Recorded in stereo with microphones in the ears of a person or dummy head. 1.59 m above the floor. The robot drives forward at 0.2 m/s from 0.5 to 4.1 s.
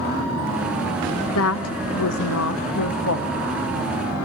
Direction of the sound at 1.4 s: 85° left.